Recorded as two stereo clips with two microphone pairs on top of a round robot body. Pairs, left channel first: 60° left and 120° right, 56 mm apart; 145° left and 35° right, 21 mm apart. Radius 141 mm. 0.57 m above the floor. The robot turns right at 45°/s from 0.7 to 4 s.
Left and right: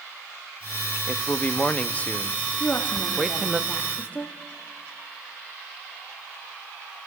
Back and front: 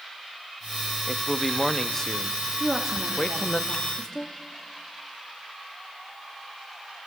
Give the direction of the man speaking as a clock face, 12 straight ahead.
11 o'clock.